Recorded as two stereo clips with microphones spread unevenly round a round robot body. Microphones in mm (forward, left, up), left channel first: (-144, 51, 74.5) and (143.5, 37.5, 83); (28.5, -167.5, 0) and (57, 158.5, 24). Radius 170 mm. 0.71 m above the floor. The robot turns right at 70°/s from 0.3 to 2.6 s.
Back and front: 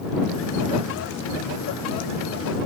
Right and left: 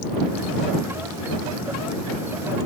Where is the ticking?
No ticking in this recording.